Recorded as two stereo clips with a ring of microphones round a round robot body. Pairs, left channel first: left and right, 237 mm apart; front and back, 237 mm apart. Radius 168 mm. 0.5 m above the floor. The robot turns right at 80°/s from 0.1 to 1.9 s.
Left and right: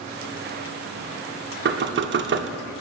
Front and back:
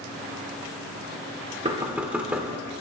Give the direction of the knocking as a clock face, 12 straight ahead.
4 o'clock.